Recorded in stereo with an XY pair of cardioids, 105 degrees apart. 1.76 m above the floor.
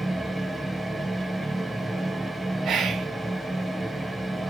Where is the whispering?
60° right, 0.6 m.